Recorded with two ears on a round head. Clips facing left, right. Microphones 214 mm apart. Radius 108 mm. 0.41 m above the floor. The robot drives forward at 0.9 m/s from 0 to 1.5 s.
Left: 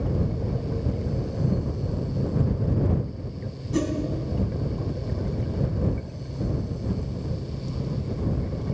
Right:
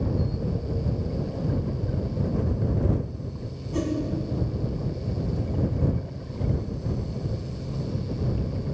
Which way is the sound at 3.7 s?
25° left (ahead or behind).